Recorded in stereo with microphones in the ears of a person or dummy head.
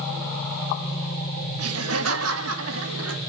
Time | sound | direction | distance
1.6 | laughter | 75° right (ahead or behind) | 2 m